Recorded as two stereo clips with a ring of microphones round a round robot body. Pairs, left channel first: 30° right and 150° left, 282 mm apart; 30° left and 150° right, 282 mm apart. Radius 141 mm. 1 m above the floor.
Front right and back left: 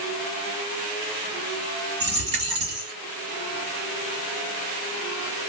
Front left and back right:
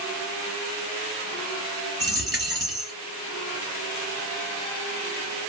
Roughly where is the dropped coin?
Behind left.